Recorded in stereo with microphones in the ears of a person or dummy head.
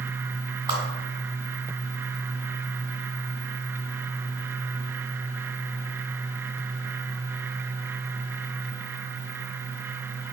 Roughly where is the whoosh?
Right.